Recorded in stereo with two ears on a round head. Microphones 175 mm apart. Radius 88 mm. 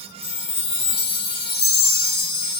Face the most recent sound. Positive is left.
turn(degrees=30)  # may be behind; listen again after turning